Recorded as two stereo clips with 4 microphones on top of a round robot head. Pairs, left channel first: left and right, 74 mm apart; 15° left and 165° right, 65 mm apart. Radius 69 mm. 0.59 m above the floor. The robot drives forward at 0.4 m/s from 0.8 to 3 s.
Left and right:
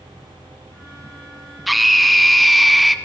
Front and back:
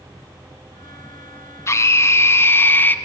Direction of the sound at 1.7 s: Straight ahead.